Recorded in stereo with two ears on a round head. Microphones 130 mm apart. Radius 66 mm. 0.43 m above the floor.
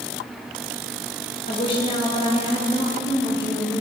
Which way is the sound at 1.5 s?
35° left (ahead or behind).